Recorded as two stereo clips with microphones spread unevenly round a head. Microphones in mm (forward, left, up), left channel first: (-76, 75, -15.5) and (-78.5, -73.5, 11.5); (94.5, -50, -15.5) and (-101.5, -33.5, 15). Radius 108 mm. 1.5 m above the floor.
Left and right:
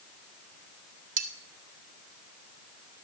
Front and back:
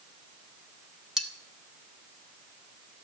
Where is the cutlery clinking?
100° right, 1.5 m.